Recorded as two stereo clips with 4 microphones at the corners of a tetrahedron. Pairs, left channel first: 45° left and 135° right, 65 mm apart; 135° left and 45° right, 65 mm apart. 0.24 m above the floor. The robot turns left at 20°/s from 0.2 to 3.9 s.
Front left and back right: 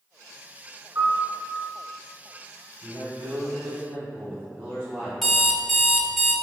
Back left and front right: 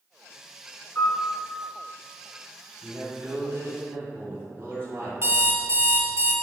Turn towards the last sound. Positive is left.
turn(degrees=-45)